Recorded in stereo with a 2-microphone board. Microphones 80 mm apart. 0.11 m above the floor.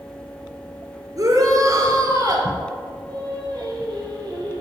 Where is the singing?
65° right (ahead or behind), 4 m.